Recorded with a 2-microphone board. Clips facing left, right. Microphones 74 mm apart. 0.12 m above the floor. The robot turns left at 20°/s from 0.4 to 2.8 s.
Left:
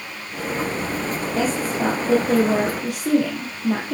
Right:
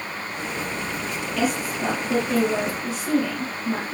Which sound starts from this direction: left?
A woman speaking, at 1.3 s.